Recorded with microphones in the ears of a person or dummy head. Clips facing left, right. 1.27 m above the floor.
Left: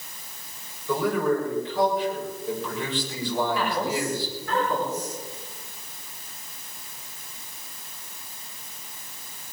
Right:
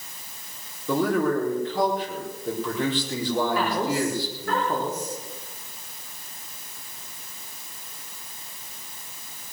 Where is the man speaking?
40° right (ahead or behind), 4.5 m.